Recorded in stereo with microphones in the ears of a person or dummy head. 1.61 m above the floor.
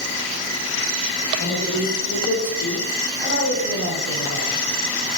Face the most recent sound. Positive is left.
turn(degrees=60)  # may be behind; listen again after turning